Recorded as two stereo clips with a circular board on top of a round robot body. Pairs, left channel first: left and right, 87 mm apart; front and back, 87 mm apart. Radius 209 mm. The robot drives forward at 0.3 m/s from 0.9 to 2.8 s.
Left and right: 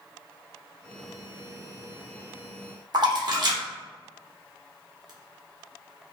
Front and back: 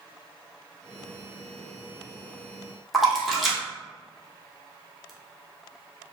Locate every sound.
2.9 s a splash: 95° right, 1.5 m